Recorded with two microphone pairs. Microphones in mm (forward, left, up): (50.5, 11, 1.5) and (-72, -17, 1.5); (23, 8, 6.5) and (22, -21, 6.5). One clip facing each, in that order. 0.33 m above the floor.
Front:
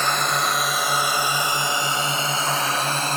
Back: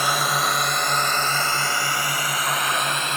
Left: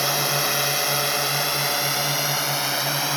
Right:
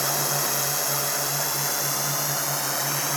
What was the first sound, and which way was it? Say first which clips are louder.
A drone: even, left 4 dB; 115° left.